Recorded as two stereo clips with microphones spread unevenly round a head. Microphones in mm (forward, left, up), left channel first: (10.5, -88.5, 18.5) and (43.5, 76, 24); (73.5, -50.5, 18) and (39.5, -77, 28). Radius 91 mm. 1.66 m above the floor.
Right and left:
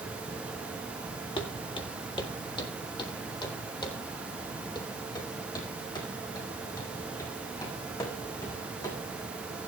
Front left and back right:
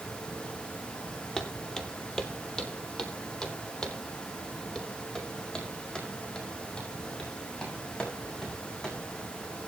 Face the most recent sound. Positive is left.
turn(degrees=-35)